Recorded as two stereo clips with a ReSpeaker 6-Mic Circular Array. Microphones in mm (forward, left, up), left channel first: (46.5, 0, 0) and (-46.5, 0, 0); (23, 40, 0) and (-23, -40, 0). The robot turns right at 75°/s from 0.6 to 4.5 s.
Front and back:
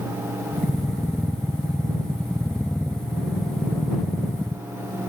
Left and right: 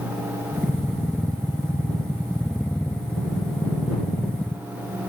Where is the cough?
No cough in this recording.